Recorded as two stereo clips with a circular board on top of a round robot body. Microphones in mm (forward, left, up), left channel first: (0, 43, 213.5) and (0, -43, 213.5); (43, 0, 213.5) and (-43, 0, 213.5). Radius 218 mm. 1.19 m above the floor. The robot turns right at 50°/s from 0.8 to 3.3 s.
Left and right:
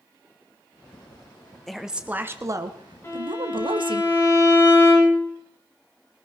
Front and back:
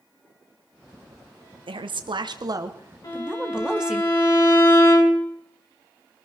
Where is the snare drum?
I don't hear a snare drum.